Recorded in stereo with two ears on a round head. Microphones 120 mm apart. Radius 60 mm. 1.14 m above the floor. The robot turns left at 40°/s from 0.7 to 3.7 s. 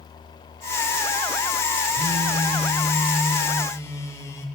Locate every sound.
1.9 s a phone buzzing: 135° right, 1.4 m; by 4.5 s 155° left, 1.4 m